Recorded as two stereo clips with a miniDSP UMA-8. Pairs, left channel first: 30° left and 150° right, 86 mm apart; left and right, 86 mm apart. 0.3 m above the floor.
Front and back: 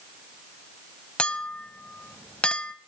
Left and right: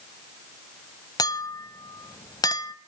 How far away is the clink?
About 1.0 m.